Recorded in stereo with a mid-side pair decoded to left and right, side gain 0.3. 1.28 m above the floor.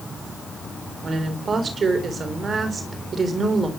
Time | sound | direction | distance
1.0 | a woman speaking | 60° right | 4.5 m